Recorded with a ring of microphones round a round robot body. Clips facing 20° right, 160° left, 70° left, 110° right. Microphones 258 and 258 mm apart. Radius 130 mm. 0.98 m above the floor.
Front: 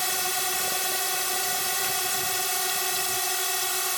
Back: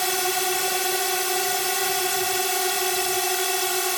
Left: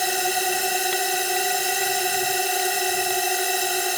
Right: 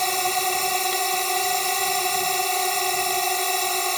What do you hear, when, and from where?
0.0 s a drone: 150° left